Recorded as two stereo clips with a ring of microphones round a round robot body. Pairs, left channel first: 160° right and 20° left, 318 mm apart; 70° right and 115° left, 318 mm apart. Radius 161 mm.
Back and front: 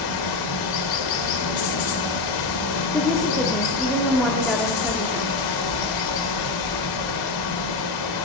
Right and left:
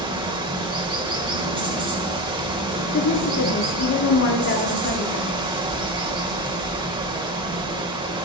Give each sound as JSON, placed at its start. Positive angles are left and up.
{"t": 0.0, "sound": "running water", "azimuth_deg": -170, "distance_m": 1.2}
{"t": 2.9, "sound": "a woman speaking", "azimuth_deg": -70, "distance_m": 1.0}